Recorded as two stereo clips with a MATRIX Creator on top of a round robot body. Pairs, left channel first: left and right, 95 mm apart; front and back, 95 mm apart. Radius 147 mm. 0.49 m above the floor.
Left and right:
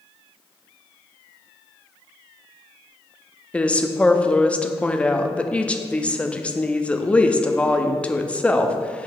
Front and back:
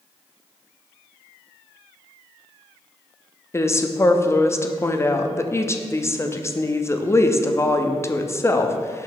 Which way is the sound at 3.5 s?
25° left.